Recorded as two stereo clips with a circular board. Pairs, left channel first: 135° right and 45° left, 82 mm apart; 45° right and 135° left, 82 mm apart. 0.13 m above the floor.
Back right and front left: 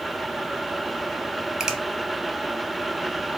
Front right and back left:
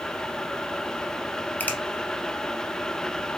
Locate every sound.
1.6 s a finger snap: 20° right, 0.9 m